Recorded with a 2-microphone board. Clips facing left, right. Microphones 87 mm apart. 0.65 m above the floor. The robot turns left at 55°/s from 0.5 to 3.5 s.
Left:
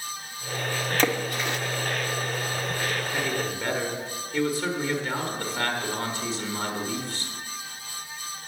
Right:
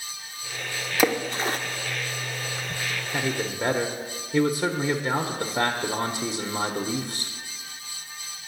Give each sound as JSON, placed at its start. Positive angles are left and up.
{"t": 1.0, "sound": "a splash", "side_deg": -10, "distance_m": 0.5}
{"t": 3.1, "sound": "a man speaking", "side_deg": -15, "distance_m": 0.9}